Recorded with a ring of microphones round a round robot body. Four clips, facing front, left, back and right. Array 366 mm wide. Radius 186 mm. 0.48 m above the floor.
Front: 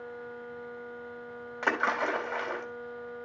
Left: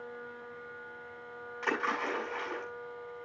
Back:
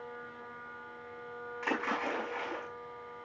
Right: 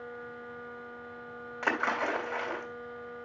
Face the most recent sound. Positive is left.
turn(degrees=-25)